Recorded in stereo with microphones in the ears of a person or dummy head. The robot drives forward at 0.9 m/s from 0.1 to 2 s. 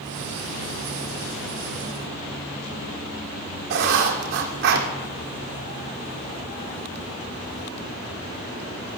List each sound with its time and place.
3.7 s writing: 60° right (ahead or behind), 2 m